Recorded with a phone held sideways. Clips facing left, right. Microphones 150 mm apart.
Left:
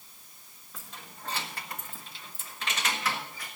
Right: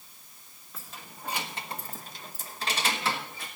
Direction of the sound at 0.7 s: Centre (ahead or behind).